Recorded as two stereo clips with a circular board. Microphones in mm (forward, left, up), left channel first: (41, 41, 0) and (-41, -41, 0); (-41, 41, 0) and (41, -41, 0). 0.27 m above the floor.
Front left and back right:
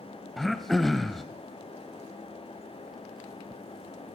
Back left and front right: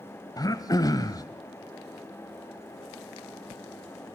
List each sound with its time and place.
0.4 s throat clearing: 135° left, 1.1 m